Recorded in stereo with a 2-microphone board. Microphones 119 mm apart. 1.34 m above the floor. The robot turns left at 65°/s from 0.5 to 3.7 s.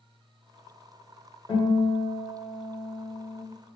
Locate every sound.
1.5 s a guitar: 60° left, 1.5 m; by 3.4 s 65° right, 1.5 m